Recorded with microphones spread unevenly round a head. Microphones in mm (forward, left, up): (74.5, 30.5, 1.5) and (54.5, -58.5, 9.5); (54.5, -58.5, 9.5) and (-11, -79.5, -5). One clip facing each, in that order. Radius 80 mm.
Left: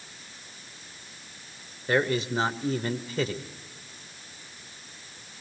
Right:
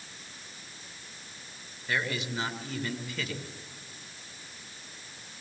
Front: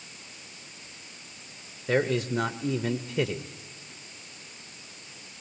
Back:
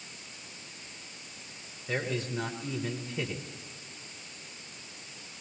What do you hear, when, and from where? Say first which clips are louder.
1.9 s a man speaking: left 7 dB, front 7 dB; 35° left, 1.3 m